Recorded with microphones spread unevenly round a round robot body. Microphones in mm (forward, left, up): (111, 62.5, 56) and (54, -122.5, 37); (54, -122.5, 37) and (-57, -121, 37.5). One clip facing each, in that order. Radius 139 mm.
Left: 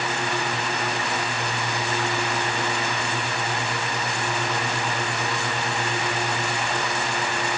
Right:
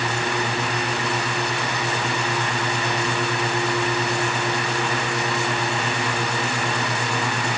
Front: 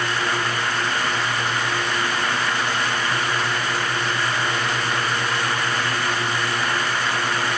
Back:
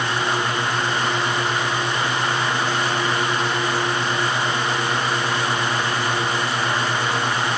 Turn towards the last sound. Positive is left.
No sound to turn to.